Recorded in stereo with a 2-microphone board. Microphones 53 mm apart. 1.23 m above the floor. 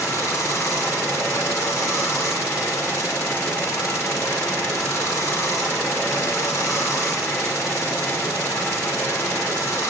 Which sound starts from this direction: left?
Running water, at 0.0 s.